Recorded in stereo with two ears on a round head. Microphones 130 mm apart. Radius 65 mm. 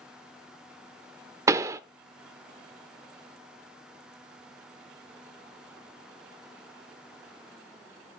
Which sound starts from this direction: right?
A pop, at 1.5 s.